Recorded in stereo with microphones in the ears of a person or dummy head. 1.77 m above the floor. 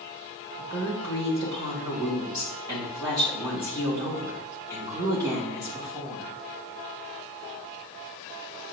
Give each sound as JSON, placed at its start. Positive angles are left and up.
{"t": 0.6, "sound": "a woman speaking", "side_deg": -20, "distance_m": 1.6}